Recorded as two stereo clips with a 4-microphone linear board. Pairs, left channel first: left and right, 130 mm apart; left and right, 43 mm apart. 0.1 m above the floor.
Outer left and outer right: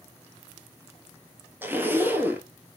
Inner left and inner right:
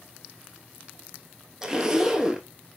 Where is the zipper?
15° right (ahead or behind), 0.9 m.